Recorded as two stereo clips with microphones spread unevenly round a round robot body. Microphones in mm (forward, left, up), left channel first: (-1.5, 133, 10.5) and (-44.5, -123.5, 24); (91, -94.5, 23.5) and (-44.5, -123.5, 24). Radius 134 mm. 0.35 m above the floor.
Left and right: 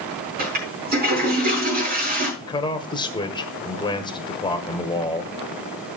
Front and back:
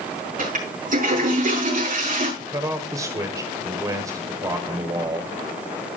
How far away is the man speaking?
About 1.3 m.